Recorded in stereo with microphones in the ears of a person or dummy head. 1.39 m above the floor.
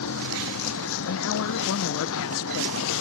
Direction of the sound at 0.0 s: 80° left.